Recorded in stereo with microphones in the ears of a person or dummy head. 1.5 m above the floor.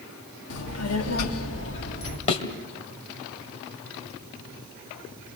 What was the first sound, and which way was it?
A child speaking, 75° left (ahead or behind).